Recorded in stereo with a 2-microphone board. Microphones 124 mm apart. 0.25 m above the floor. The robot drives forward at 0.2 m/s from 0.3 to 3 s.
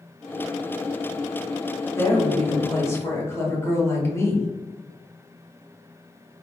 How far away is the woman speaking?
About 0.9 m.